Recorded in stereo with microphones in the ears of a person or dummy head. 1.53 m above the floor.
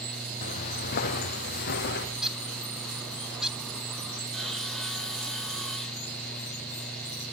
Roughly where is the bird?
Centre.